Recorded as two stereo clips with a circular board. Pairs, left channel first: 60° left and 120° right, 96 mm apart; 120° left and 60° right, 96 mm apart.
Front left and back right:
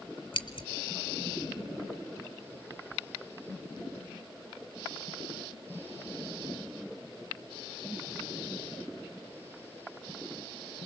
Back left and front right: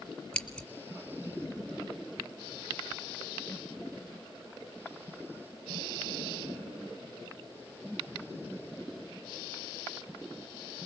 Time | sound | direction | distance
0.3 | scissors | 40° left | 1.8 m